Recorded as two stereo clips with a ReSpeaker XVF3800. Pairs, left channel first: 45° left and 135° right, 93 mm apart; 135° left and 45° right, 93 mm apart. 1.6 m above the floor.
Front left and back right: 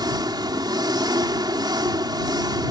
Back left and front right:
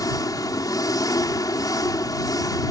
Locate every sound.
0.0 s an engine running: 175° right